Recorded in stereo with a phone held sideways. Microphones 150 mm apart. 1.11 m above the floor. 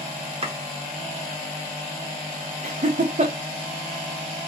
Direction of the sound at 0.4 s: 40° right (ahead or behind).